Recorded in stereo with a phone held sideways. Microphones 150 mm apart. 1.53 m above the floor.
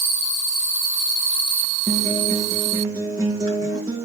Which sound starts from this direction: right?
A guitar, at 1.9 s.